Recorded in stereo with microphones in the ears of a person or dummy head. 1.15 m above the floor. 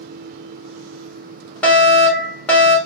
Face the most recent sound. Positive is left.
turn(degrees=15)  # may be behind; listen again after turning